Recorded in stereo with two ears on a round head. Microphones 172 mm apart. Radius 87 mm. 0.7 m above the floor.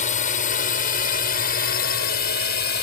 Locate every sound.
0.0 s a drone: 40° left (ahead or behind); by 2.8 s 50° left (ahead or behind)